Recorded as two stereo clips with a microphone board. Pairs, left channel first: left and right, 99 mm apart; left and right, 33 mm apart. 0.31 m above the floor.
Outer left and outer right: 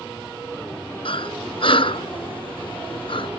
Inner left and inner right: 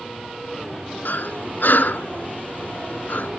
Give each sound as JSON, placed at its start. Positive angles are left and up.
{"t": 1.1, "sound": "breathing", "side_deg": 65}